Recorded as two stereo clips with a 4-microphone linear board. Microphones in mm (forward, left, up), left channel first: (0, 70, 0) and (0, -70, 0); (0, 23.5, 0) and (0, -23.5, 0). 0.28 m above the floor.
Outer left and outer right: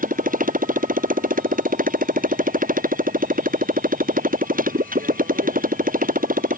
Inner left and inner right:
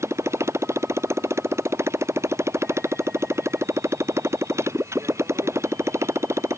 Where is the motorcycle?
80° right; by 6.6 s 85° right.